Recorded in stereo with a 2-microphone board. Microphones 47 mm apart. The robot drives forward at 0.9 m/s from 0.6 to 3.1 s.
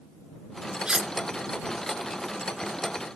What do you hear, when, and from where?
0.9 s cutlery clinking: 15° right (ahead or behind); by 1.1 s 20° right (ahead or behind)